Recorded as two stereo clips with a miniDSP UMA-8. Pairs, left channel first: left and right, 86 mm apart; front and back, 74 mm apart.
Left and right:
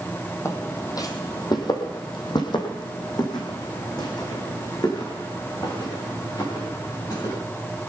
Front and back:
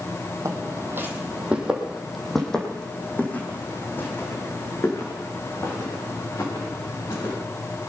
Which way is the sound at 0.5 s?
140° left.